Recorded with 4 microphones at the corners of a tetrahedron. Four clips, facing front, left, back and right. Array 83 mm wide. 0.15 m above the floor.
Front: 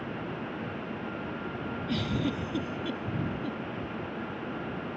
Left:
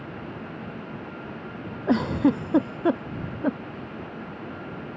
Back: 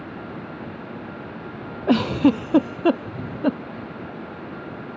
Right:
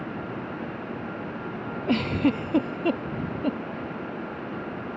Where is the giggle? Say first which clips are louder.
Left 2 dB, back 15 dB; 170° left.